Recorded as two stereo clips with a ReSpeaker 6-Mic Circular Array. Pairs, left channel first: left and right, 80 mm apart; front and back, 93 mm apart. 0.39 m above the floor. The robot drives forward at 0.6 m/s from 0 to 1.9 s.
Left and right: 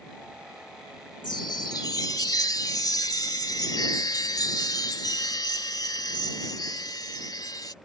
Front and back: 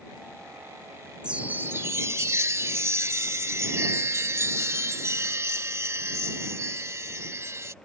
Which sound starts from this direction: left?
A chime, at 1.2 s.